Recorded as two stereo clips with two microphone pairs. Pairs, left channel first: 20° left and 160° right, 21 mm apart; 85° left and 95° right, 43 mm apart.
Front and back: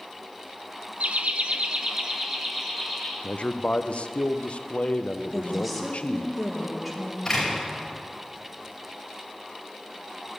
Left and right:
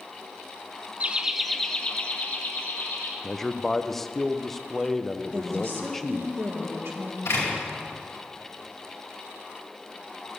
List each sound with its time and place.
1.0 s laughter: 150° right, 0.9 m; by 3.1 s 125° left, 2.5 m
3.2 s a man speaking: 5° left, 0.7 m
5.3 s a woman speaking: 75° right, 1.9 m
7.2 s a door slam: 90° left, 4.5 m